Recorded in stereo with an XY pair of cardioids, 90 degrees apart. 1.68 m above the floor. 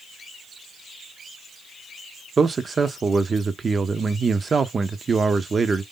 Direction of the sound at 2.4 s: 35° right.